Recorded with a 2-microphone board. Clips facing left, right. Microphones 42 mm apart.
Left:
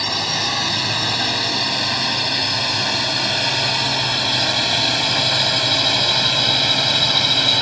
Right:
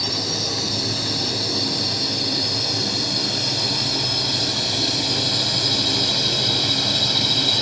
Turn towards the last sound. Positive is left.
turn(degrees=30)  # may be behind; listen again after turning